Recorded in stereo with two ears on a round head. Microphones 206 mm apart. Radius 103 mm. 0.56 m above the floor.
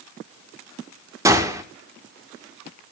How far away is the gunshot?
About 1.7 m.